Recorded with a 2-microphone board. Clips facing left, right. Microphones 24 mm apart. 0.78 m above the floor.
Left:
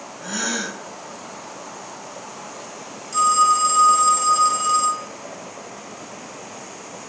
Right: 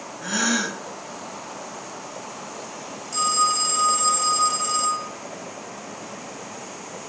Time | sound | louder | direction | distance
0.2 | a gasp | right 3 dB | 20° right (ahead or behind) | 0.8 m
3.1 | a phone ringing | left 5 dB | centre (ahead or behind) | 1.3 m